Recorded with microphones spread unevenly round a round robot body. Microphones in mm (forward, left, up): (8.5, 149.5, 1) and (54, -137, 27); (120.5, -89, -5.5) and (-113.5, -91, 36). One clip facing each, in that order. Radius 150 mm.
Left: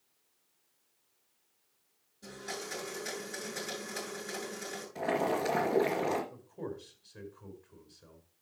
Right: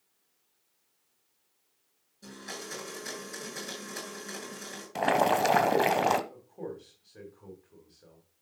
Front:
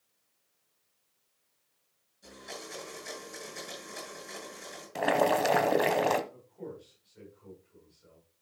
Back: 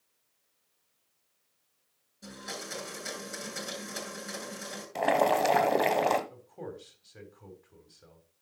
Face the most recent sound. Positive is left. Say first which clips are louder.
# right 1 dB, back 1 dB
turn(degrees=175)